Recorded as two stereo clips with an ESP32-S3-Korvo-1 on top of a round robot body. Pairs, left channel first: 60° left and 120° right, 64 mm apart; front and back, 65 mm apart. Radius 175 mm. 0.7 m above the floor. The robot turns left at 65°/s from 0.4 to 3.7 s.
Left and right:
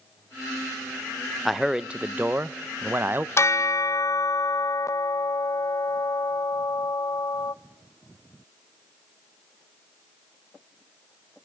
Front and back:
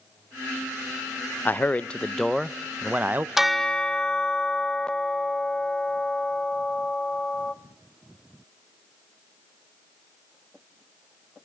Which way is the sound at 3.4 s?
95° left.